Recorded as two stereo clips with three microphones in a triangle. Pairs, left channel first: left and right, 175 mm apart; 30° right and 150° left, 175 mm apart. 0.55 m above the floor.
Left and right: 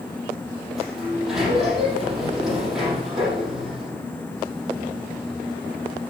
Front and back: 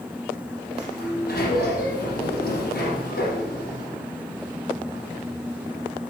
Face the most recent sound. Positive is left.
turn(degrees=0)